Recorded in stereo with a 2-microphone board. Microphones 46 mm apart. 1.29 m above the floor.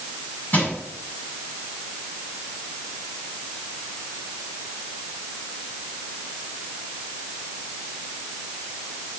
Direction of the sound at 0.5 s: 45° left (ahead or behind).